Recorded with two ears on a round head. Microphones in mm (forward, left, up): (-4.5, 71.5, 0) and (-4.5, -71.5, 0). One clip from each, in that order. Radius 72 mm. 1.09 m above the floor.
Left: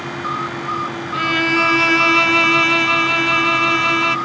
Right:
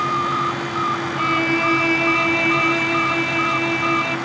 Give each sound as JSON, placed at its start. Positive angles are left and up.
{"t": 1.1, "sound": "a violin", "side_deg": 40}